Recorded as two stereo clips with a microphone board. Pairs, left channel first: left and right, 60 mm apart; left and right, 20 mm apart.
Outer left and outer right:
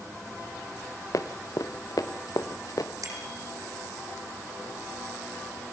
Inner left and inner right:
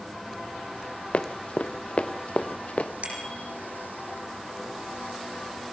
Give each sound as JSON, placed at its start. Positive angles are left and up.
{"t": 1.1, "sound": "running footsteps", "side_deg": 70, "distance_m": 1.6}
{"t": 3.0, "sound": "a bicycle bell", "side_deg": -75, "distance_m": 5.0}